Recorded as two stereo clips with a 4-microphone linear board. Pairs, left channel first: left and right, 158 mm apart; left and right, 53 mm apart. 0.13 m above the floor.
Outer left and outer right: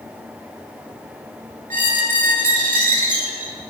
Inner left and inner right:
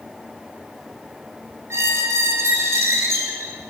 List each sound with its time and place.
1.7 s a squeak: 60° right (ahead or behind), 0.5 m